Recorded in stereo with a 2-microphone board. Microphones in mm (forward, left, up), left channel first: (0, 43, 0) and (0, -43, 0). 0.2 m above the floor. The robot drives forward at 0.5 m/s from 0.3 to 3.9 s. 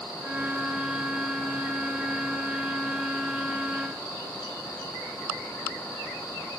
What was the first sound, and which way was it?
Only background noise.